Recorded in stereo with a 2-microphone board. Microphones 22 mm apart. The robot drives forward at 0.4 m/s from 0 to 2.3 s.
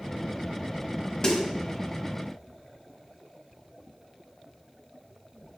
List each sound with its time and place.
1.2 s a snare drum: 25° left (ahead or behind), 1.1 m